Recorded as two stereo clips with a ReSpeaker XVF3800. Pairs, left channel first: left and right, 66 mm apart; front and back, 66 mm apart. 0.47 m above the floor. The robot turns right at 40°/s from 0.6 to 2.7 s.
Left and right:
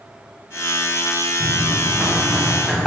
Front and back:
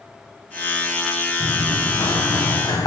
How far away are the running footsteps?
About 3 m.